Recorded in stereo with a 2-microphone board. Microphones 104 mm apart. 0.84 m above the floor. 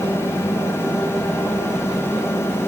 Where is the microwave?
I don't hear a microwave.